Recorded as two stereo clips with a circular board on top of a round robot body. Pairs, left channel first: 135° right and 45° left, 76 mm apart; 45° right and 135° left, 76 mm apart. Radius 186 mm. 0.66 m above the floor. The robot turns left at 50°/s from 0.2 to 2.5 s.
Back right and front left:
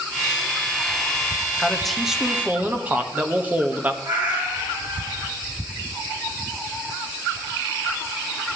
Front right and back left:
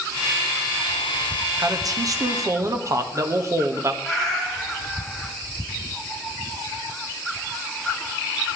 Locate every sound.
1.6 s a man speaking: 150° left, 1.6 m; by 3.9 s 105° left, 1.6 m
4.0 s a cat meowing: 35° left, 2.5 m